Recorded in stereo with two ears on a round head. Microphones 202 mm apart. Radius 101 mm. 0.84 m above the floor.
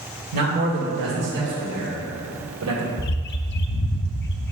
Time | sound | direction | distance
0.3 | a man speaking | 40° right (ahead or behind) | 2.5 m
3.0 | a bird | 50° left (ahead or behind) | 0.5 m